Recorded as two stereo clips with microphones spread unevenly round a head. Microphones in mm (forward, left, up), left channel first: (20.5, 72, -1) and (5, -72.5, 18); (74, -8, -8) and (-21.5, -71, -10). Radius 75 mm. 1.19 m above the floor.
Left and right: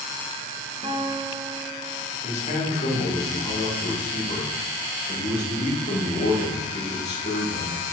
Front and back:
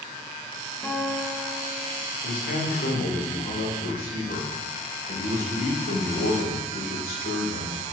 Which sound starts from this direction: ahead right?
A guitar, at 0.8 s.